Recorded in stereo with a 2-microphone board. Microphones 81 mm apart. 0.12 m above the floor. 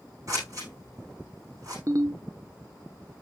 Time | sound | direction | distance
0.3 | scissors | 45° right (ahead or behind) | 8.5 m
1.9 | a ringtone | 45° right (ahead or behind) | 1.1 m